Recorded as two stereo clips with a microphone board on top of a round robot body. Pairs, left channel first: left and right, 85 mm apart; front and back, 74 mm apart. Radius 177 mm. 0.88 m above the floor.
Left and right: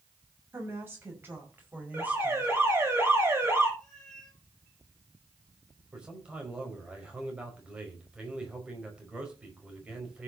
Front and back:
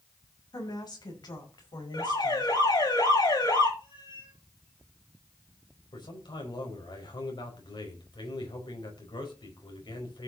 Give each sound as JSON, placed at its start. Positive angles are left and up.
{"t": 0.5, "sound": "a woman speaking", "azimuth_deg": -25, "distance_m": 6.0}
{"t": 1.9, "sound": "an alarm", "azimuth_deg": -25, "distance_m": 7.5}
{"t": 3.8, "sound": "a cat meowing", "azimuth_deg": 5, "distance_m": 9.5}
{"t": 5.9, "sound": "a man speaking", "azimuth_deg": -10, "distance_m": 5.0}